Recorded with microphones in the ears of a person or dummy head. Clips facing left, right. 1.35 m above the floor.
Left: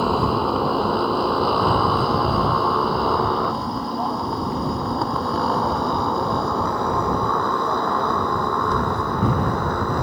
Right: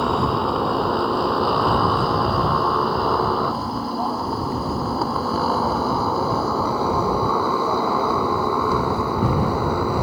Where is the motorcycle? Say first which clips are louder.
Left 1 dB; 5° left (ahead or behind); by 10.0 s 5° right (ahead or behind).